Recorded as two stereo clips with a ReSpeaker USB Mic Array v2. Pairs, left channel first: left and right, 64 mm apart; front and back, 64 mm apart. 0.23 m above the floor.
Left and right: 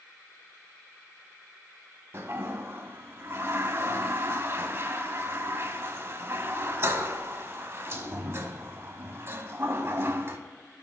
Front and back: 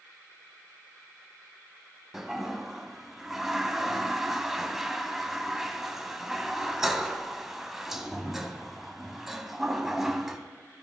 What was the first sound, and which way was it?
A toilet flushing, 95° right.